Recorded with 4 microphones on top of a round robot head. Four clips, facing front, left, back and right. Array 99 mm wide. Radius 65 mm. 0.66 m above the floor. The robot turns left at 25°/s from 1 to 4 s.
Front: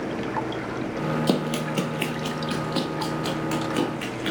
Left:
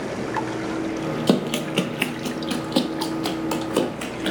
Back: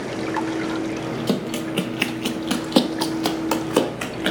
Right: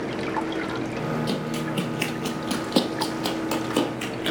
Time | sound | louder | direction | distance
1.3 | running footsteps | left 6 dB, even | 80° left | 1.0 m